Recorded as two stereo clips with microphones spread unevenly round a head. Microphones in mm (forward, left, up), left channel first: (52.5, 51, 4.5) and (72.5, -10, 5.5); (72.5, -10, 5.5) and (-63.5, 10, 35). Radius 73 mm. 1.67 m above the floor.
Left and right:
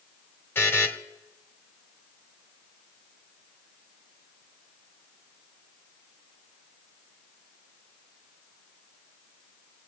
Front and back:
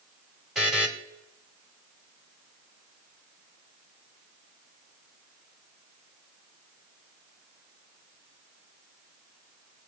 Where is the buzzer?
110° left, 1.6 m.